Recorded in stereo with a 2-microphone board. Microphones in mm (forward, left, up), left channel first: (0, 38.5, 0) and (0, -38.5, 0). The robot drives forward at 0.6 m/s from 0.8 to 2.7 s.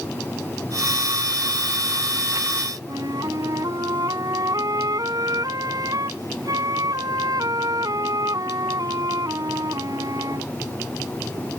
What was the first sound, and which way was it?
A flute, 55° right (ahead or behind).